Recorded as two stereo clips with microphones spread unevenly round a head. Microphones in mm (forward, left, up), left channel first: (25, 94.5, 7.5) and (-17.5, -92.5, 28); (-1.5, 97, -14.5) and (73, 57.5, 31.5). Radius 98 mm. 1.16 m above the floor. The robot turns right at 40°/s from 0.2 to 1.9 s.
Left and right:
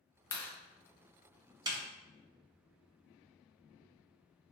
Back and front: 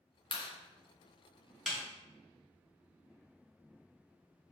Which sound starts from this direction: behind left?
A clap, at 0.3 s.